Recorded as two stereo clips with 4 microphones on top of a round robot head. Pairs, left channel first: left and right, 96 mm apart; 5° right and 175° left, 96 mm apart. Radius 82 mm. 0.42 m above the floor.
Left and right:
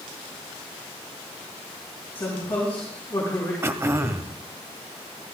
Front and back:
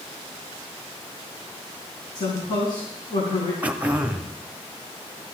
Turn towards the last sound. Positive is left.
turn(degrees=-120)